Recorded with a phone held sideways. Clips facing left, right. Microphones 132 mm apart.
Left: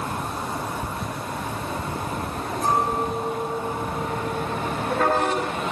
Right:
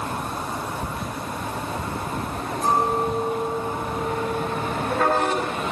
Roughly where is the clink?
Right.